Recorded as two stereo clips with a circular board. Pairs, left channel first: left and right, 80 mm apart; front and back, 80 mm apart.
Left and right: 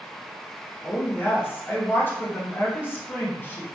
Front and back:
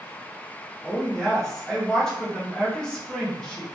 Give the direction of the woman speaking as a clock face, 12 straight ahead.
10 o'clock.